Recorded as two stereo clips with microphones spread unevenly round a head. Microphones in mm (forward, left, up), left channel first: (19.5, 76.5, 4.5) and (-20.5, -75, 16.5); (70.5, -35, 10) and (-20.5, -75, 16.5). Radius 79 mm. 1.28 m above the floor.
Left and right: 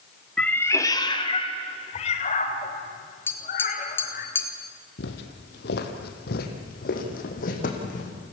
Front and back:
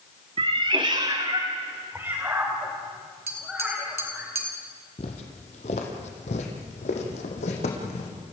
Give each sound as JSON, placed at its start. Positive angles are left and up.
{"t": 0.4, "sound": "a cat meowing", "azimuth_deg": 165, "distance_m": 1.1}
{"t": 3.3, "sound": "tapping", "azimuth_deg": 155, "distance_m": 2.0}
{"t": 5.0, "sound": "footsteps", "azimuth_deg": 65, "distance_m": 2.5}